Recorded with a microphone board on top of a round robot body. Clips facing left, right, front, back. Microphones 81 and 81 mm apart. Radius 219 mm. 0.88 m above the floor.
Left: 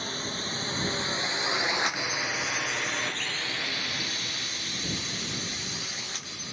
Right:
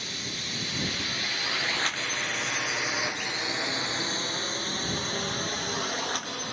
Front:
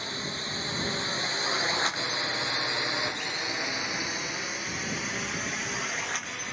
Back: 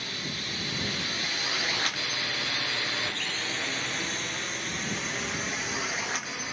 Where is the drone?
55° left; by 6.5 s 95° right.